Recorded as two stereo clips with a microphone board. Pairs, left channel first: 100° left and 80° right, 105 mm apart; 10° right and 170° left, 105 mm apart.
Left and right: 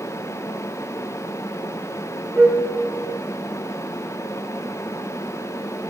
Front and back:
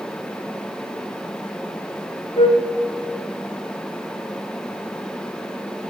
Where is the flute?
5° left, 0.6 m.